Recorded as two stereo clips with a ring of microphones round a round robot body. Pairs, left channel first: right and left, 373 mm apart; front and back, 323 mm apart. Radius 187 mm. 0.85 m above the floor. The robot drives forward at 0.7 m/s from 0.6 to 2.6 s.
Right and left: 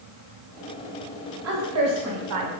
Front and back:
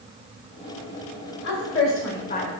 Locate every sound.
1.4 s a woman speaking: 40° left, 1.5 m; by 2.5 s 70° left, 1.1 m